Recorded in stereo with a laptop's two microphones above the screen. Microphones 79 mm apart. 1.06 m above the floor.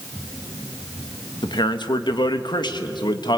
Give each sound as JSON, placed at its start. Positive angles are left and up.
{"t": 1.4, "sound": "a man speaking", "side_deg": 70, "distance_m": 1.5}